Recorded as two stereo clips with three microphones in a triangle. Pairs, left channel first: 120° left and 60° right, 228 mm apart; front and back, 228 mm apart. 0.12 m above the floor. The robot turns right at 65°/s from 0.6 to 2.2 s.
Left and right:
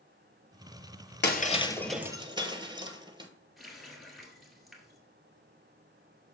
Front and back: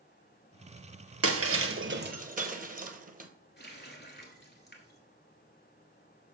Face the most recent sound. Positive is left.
turn(degrees=30)